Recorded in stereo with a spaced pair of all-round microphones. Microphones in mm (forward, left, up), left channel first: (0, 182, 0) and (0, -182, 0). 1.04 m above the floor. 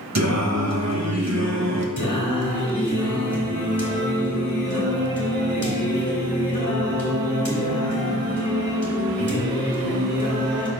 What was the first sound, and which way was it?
Singing, 45° right (ahead or behind).